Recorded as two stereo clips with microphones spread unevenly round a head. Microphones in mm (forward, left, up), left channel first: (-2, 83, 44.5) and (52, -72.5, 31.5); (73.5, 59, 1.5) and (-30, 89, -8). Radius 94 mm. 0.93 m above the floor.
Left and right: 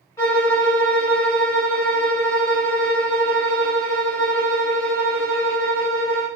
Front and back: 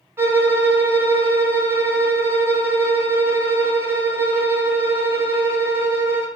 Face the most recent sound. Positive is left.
turn(degrees=130)